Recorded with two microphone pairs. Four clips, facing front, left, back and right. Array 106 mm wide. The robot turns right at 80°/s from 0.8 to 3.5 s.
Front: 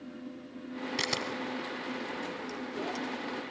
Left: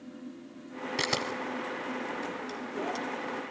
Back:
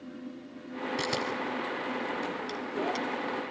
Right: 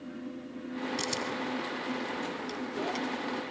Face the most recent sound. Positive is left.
turn(degrees=-90)